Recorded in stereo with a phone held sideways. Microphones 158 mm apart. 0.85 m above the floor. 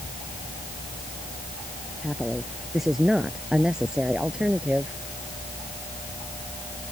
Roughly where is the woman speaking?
Centre.